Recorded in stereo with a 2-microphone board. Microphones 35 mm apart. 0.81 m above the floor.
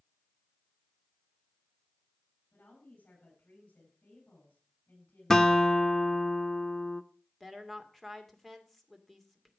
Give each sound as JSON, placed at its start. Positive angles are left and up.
{"t": 2.5, "sound": "a woman speaking", "side_deg": 70, "distance_m": 8.5}
{"t": 5.3, "sound": "a guitar", "side_deg": 15, "distance_m": 0.7}
{"t": 7.4, "sound": "a woman speaking", "side_deg": 10, "distance_m": 2.0}